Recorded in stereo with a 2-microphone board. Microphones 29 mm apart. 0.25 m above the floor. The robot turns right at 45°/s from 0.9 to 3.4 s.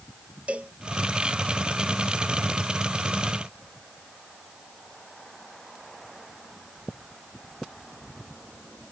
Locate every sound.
0.5 s a cowbell: 50° right (ahead or behind)